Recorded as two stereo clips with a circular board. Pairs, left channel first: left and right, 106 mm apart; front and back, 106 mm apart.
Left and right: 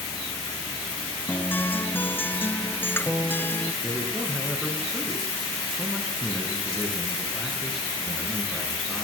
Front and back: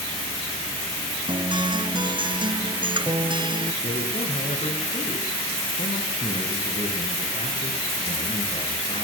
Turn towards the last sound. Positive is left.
turn(degrees=0)